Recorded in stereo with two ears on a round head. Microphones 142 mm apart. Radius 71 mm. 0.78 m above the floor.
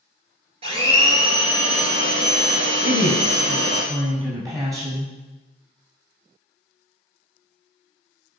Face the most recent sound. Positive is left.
turn(degrees=-20)  # may be behind; listen again after turning